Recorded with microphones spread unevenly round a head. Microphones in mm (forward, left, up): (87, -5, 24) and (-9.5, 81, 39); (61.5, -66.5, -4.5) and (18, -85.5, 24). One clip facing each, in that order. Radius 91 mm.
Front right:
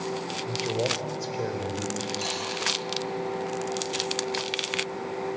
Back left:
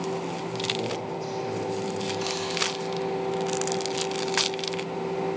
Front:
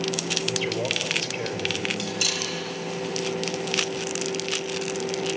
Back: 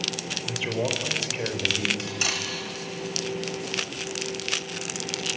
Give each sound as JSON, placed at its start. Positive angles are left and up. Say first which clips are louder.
{"t": 0.5, "sound": "a man speaking", "louder": "front right 5 dB, back 1 dB", "azimuth_deg": -80, "distance_m": 4.0}
{"t": 2.0, "sound": "cutlery clinking", "louder": "back left 3 dB, front 1 dB", "azimuth_deg": -115, "distance_m": 4.5}